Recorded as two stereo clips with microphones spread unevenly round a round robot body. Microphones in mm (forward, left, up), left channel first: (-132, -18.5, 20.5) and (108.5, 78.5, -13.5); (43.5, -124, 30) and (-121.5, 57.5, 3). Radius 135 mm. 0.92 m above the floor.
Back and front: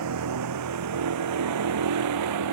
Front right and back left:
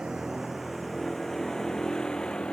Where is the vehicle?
45° left; by 2.5 s 40° left.